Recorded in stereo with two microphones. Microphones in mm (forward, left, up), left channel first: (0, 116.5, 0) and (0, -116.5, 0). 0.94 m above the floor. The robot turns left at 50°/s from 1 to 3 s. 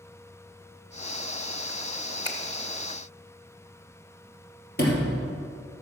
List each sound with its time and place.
2.2 s a finger snap: 20° left (ahead or behind), 0.9 m; by 2.4 s 10° left (ahead or behind), 0.9 m
4.8 s a sliding door: 45° left (ahead or behind), 3 m